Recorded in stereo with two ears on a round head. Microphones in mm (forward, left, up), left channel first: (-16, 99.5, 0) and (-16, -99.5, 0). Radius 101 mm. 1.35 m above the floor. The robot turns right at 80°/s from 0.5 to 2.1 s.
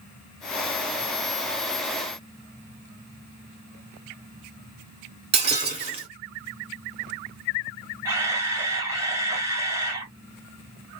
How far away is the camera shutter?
About 1.7 m.